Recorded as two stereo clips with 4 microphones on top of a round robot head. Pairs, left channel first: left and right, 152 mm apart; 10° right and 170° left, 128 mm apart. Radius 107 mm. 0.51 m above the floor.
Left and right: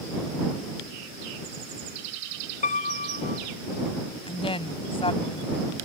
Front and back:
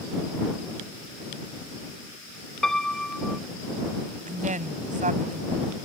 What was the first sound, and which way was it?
A piano, 75° left.